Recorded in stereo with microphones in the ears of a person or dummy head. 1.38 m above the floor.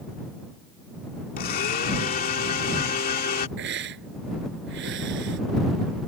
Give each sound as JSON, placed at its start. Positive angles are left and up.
{"t": 1.4, "sound": "a blender", "side_deg": 50}
{"t": 3.6, "sound": "a hiss", "side_deg": -60}